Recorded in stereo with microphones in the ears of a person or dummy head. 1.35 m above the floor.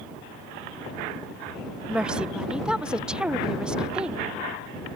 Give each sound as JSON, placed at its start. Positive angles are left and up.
{"t": 1.9, "sound": "a woman speaking", "side_deg": -5}